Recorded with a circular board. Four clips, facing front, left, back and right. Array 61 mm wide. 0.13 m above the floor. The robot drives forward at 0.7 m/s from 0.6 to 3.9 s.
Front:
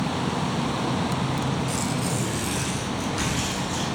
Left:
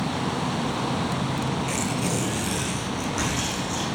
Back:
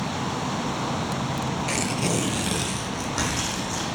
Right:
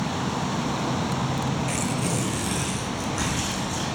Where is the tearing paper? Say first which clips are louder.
Even, back 1 dB; straight behind, 0.5 m.